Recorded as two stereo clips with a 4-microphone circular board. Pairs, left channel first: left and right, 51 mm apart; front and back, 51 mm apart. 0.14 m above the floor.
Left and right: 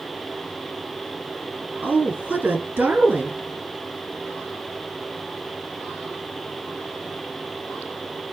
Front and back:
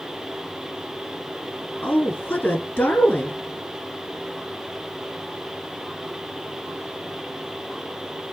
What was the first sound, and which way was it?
A woman speaking, 45° right.